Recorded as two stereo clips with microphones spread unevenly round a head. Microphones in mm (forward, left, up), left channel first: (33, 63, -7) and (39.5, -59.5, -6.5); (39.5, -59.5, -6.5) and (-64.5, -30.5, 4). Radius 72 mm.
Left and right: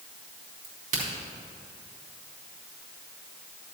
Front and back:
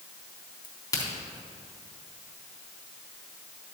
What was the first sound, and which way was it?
A crack, 75° right.